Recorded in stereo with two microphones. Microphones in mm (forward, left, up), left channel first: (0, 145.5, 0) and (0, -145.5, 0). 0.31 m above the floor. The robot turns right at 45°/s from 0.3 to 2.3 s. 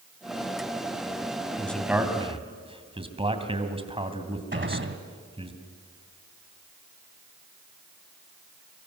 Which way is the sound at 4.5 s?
40° right (ahead or behind).